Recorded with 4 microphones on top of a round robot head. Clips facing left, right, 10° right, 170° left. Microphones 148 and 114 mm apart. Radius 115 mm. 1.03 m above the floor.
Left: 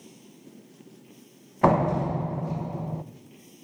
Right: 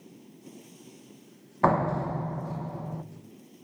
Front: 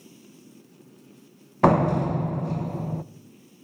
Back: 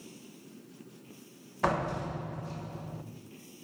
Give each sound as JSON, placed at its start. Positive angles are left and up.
{"t": 1.6, "sound": "a door slam", "azimuth_deg": 20, "distance_m": 0.7}